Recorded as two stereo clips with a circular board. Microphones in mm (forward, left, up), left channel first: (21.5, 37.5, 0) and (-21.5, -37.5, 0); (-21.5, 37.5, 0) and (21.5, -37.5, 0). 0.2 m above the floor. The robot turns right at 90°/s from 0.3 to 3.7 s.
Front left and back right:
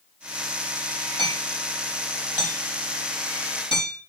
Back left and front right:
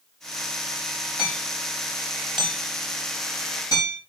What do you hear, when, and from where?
1.2 s hammering: 155° right, 6 m; by 4.0 s 70° left, 6 m